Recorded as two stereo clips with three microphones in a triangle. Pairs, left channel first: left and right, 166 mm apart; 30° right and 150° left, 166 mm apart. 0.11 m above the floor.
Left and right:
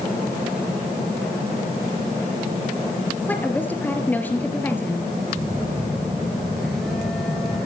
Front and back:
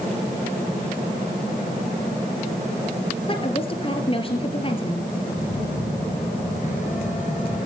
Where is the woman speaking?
15° left, 2.5 m.